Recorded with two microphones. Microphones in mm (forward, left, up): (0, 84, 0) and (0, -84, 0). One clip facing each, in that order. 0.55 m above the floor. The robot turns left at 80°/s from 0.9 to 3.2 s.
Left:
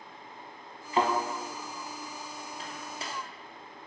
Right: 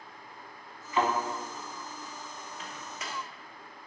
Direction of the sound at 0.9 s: 35° left (ahead or behind).